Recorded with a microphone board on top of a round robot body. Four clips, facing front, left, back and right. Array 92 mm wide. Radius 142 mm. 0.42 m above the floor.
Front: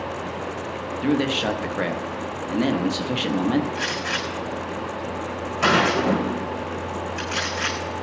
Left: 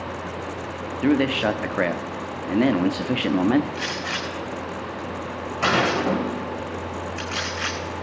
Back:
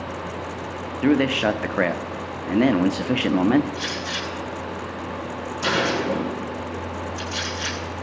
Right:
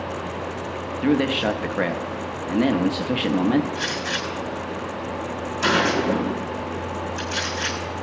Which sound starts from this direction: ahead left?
A gunshot, at 3.8 s.